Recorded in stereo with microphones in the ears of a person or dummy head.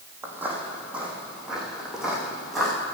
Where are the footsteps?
10° right (ahead or behind), 3.5 m; by 2.7 s centre (ahead or behind), 5 m.